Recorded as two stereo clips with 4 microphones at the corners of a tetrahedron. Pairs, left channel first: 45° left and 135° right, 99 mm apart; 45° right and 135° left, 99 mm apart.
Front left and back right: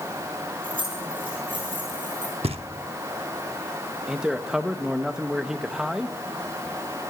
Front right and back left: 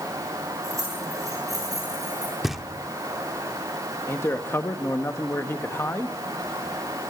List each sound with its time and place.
0.6 s keys jangling: 165° right, 8.5 m; by 2.3 s 175° right, 10 m
2.4 s knocking: 140° right, 0.9 m
4.1 s a man speaking: 55° right, 1.1 m